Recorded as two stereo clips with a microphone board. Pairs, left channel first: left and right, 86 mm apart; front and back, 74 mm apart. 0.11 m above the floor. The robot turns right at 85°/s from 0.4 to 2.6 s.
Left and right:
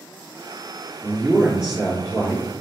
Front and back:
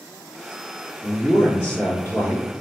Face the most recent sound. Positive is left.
turn(degrees=65)